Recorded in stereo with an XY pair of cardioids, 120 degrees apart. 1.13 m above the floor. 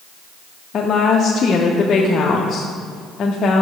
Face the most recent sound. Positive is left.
turn(degrees=45)